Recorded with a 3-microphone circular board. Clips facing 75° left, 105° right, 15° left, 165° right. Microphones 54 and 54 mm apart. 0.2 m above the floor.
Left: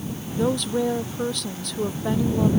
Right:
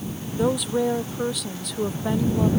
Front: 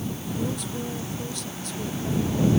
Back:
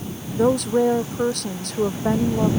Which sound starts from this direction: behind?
A woman speaking, at 0.3 s.